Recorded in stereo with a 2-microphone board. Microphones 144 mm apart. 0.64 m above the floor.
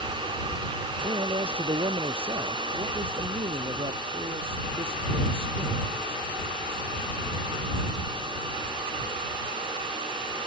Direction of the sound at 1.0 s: 40° right (ahead or behind).